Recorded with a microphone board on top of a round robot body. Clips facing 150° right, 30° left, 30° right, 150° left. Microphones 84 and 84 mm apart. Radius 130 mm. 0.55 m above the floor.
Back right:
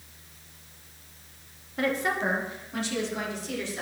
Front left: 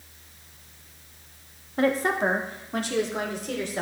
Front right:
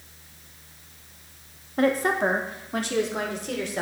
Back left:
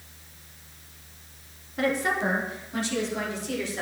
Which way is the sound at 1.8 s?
10° right.